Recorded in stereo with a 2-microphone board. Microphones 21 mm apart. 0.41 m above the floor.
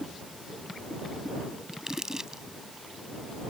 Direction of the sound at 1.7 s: 25° right (ahead or behind).